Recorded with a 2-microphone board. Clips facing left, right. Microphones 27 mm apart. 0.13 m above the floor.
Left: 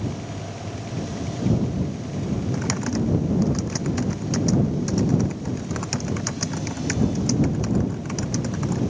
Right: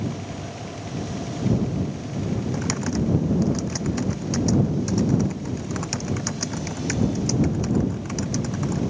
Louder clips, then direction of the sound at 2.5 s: Even; centre (ahead or behind).